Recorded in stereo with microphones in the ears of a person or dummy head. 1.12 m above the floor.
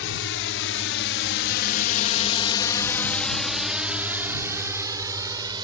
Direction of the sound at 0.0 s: 65° left (ahead or behind).